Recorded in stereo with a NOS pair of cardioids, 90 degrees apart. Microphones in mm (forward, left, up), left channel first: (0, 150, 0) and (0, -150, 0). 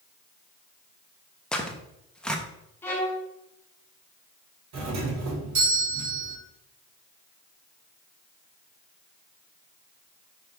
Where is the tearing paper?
5° left, 0.6 m.